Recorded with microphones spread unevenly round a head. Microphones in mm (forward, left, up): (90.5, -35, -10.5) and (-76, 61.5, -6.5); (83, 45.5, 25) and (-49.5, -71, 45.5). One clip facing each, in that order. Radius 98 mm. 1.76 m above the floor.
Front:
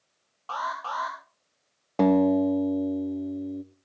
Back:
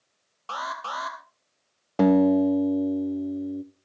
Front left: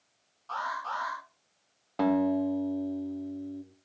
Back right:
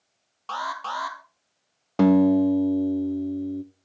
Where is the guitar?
130° right, 0.7 m.